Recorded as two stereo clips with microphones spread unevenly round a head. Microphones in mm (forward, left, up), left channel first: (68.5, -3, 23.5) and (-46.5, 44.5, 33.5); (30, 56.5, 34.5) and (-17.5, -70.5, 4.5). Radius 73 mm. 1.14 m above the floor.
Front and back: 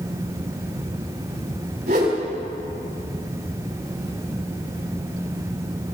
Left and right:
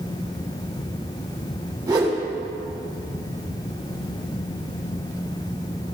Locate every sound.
1.9 s a whoosh: 175° right, 7 m